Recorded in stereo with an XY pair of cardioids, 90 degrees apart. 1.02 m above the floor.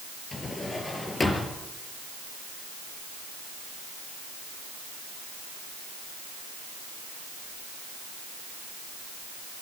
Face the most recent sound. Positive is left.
turn(degrees=30)